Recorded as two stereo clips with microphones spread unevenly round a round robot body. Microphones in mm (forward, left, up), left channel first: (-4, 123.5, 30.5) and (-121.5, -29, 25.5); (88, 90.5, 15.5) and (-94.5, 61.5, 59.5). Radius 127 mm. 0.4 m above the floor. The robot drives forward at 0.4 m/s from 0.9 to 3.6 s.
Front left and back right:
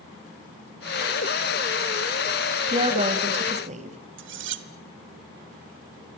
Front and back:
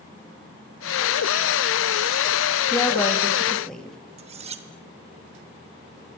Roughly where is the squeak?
No squeak in this recording.